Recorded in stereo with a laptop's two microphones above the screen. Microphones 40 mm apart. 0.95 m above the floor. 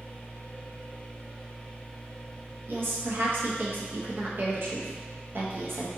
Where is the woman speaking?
60° right (ahead or behind), 0.8 m.